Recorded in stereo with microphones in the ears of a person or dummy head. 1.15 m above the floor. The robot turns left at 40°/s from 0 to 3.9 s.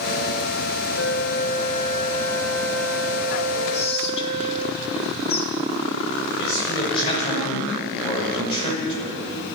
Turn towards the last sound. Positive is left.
turn(degrees=35)  # may be behind; listen again after turning